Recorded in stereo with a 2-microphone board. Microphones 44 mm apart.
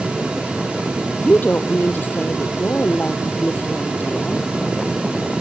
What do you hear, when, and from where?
1.2 s a woman speaking: 45° left (ahead or behind)